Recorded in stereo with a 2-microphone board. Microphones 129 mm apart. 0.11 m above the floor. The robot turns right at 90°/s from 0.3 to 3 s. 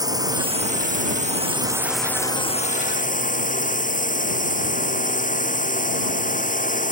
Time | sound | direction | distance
0.0 | a drone | 150° right | ?